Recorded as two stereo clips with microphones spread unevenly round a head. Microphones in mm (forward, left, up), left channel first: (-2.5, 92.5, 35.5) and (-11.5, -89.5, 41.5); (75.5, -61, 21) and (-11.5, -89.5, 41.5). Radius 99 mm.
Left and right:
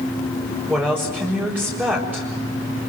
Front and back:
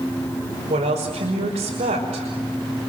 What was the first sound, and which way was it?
A woman speaking, 175° right.